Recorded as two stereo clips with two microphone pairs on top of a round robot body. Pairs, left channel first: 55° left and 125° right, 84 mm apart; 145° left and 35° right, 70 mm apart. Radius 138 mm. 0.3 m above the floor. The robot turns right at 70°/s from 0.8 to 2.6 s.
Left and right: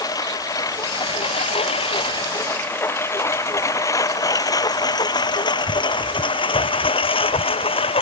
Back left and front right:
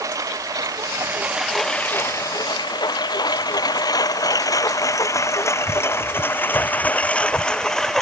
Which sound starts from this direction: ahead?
A lawn mower, at 0.0 s.